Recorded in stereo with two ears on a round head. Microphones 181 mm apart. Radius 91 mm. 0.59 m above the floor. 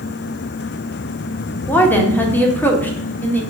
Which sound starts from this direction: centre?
A woman speaking, at 1.7 s.